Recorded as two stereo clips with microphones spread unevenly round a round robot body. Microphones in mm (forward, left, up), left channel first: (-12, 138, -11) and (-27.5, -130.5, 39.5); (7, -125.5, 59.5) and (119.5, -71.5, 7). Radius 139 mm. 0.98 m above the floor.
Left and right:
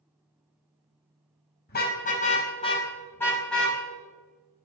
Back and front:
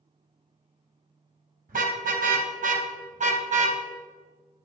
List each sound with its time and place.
1.7 s a car horn: 30° left, 3.5 m; by 3.8 s 5° right, 3.5 m